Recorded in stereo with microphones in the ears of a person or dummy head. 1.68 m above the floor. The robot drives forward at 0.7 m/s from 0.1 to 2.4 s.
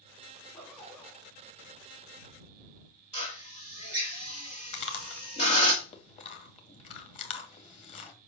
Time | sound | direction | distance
0.4 | a zipper | 5° right (ahead or behind) | 3.5 m
3.1 | a drill | 30° left (ahead or behind) | 1.8 m
4.7 | chewing | 40° left (ahead or behind) | 1.8 m